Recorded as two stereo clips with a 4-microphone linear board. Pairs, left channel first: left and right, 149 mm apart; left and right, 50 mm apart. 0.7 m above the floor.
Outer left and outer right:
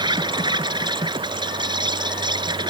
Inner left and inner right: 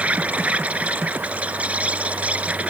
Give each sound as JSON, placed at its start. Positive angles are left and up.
{"t": 0.0, "sound": "an insect", "side_deg": -30}